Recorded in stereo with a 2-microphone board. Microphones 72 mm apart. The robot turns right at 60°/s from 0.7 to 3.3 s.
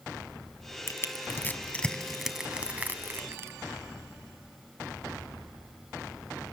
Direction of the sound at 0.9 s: 35° left (ahead or behind).